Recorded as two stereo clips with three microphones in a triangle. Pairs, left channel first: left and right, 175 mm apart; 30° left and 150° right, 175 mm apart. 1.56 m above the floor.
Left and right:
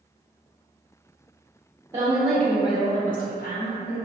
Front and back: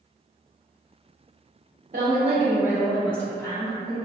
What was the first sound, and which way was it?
A woman speaking, 150° right.